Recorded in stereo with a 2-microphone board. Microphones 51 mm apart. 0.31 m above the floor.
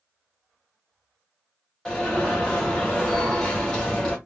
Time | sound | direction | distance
1.9 | an alarm | 5° left (ahead or behind) | 2.5 m